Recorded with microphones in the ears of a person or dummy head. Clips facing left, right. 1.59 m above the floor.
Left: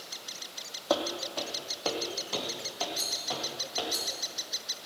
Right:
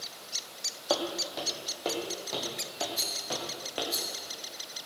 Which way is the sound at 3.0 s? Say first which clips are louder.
Even; 50° right (ahead or behind).